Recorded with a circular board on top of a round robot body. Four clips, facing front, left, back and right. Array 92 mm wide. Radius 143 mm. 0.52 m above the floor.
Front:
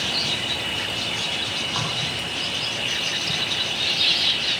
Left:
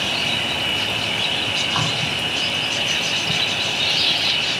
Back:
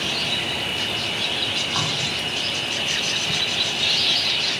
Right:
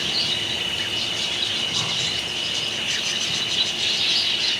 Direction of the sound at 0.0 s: 95° left.